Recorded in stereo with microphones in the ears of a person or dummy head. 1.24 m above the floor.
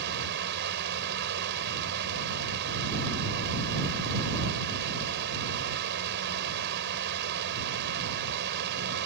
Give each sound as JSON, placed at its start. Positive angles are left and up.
{"t": 0.0, "sound": "a fan", "side_deg": -60}